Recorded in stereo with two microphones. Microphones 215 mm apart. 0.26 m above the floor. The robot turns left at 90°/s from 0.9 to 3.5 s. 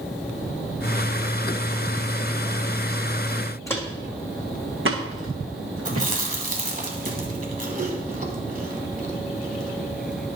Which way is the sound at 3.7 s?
15° left (ahead or behind).